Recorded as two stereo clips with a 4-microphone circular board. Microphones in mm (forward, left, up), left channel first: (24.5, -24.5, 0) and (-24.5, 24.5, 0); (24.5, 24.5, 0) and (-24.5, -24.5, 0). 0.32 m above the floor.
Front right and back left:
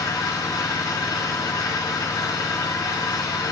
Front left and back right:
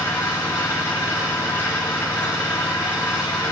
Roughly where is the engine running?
Ahead.